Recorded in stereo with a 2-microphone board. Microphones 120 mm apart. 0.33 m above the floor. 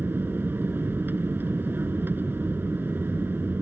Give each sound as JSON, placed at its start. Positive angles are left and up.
{"t": 0.0, "sound": "an aircraft", "side_deg": -15}